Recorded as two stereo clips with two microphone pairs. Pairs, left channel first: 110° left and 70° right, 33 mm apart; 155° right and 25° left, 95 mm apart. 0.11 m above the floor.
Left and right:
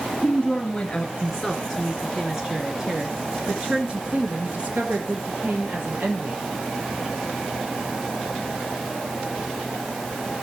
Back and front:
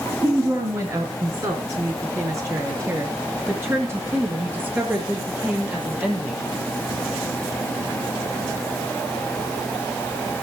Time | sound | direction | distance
0.2 | a woman speaking | 65° left | 2 m